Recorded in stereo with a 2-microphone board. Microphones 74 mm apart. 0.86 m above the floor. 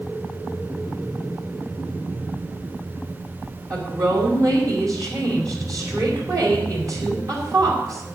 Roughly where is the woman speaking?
Right.